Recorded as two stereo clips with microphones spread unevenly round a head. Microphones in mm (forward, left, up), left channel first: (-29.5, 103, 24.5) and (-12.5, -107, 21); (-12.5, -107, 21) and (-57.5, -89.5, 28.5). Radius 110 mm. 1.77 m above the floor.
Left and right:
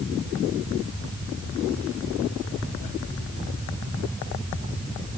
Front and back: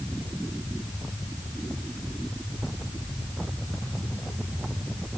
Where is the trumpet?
I don't hear a trumpet.